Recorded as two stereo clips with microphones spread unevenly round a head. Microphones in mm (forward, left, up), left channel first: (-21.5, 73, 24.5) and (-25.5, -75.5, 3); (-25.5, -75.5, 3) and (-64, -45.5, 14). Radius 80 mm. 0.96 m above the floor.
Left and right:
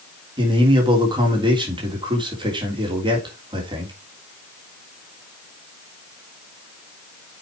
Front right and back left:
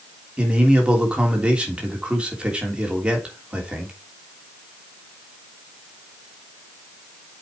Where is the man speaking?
145° right, 3.5 m.